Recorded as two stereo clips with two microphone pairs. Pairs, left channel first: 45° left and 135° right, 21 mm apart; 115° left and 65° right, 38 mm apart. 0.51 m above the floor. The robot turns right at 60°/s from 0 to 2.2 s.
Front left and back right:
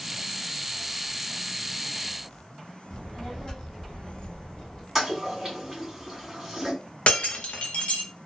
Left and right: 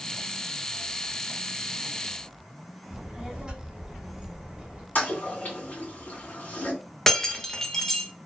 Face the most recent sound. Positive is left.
turn(degrees=40)